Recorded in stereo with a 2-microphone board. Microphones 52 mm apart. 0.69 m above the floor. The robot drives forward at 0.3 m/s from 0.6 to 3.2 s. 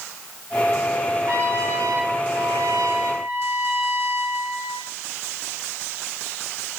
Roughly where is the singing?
I don't hear singing.